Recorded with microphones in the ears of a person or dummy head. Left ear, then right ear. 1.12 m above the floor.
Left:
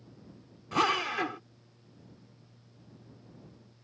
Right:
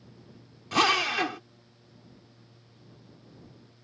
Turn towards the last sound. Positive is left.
turn(degrees=-15)  # may be behind; listen again after turning